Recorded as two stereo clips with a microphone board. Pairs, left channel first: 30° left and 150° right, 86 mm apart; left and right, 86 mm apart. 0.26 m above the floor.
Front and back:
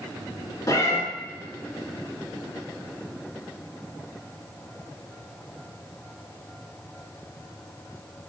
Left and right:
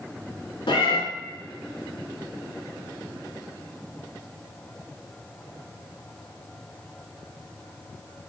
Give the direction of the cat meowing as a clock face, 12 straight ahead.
9 o'clock.